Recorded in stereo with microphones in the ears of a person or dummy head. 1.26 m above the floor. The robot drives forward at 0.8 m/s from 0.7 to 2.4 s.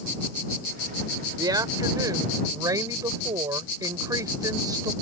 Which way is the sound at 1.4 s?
20° right (ahead or behind).